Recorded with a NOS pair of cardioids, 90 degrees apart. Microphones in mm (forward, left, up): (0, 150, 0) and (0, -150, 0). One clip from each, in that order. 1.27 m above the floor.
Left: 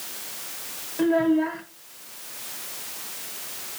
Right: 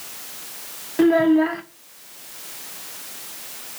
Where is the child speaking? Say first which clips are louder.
Right 5 dB; 45° right, 0.7 m.